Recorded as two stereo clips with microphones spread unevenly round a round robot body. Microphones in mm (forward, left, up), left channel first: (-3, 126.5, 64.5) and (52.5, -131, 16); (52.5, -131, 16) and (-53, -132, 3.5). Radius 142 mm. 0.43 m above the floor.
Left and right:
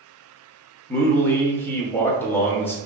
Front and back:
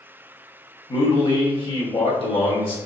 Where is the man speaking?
10° left, 1.4 m.